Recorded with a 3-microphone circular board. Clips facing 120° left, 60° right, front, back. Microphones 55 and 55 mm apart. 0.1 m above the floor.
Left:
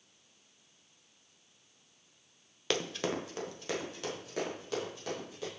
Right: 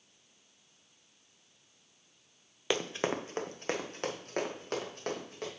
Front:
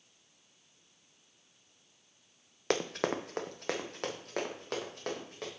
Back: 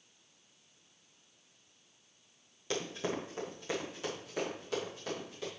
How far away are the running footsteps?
About 0.9 m.